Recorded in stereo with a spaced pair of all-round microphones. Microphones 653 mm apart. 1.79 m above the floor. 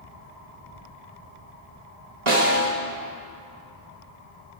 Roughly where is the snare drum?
Right.